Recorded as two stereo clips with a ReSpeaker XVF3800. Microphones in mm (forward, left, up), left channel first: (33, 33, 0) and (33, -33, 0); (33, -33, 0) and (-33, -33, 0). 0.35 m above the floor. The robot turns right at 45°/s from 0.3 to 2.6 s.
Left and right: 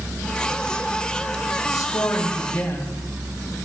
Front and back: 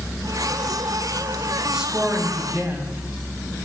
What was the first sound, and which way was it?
A woman speaking, 95° left.